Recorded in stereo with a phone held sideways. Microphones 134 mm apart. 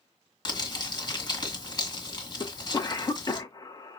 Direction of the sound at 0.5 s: 35° left (ahead or behind).